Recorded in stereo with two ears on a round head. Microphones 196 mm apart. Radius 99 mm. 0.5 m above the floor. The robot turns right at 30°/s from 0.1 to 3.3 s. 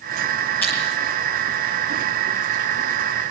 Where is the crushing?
10° left (ahead or behind), 8.5 m; by 0.8 s 15° left (ahead or behind), 8.5 m.